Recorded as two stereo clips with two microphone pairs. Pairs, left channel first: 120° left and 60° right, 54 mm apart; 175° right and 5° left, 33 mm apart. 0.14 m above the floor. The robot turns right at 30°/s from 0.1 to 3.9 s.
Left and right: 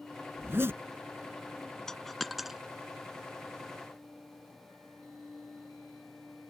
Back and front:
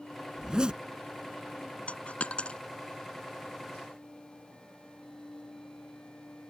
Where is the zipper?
60° right; by 0.8 s 50° right.